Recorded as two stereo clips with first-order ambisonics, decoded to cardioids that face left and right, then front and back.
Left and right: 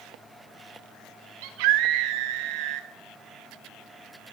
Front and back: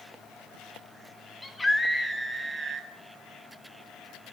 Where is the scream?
75° right, 1.7 m; by 2.9 s 105° right, 1.6 m.